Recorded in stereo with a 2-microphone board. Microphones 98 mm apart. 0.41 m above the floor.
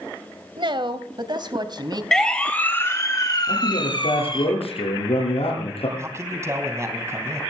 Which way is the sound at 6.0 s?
30° right (ahead or behind).